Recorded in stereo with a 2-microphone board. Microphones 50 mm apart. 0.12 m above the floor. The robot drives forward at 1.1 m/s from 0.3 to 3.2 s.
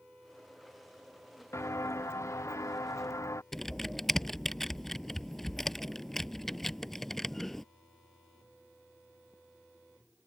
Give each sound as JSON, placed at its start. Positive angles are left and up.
{"t": 1.5, "sound": "footsteps", "side_deg": 65}
{"t": 3.5, "sound": "typing on a keyboard", "side_deg": 5}